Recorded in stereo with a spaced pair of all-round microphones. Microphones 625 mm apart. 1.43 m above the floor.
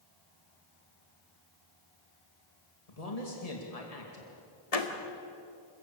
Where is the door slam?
70° left (ahead or behind), 1.8 m.